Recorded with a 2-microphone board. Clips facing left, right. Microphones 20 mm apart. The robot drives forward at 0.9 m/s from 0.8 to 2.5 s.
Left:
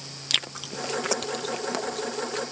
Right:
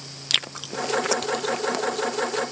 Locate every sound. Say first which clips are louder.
0.3 s chewing: right 2 dB; 5° right (ahead or behind); by 2.4 s centre (ahead or behind)